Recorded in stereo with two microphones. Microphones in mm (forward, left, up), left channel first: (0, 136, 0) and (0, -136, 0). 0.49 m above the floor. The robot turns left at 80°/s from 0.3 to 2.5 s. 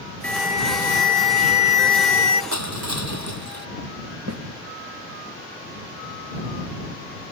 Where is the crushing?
80° right.